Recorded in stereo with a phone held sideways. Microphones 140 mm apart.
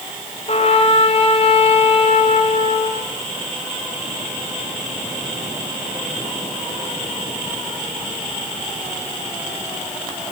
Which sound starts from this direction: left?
A trumpet, at 0.5 s.